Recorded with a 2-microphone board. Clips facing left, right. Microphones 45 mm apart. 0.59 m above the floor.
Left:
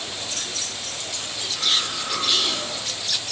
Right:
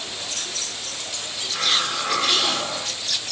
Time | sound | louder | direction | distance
1.5 | a hiss | right 2 dB | 70° right (ahead or behind) | 1.8 m